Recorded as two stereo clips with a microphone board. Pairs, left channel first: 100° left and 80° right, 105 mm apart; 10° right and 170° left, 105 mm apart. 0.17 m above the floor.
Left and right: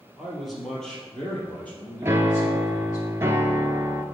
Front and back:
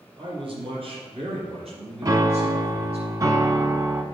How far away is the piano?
About 0.6 m.